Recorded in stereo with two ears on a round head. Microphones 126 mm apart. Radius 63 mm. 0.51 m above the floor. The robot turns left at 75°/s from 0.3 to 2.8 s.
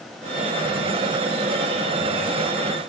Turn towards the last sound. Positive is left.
No sound to turn to.